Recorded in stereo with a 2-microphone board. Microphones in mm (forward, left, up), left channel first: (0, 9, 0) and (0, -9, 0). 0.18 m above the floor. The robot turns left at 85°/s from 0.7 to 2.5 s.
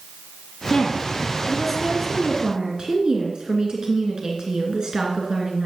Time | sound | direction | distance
0.7 | a woman speaking | 95° left | 2.5 m